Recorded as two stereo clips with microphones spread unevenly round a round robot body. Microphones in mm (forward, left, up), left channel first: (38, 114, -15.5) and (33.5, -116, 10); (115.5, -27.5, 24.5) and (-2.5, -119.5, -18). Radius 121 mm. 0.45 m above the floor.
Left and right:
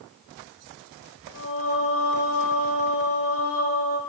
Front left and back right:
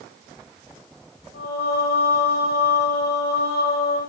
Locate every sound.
1.3 s singing: 60° left, 10 m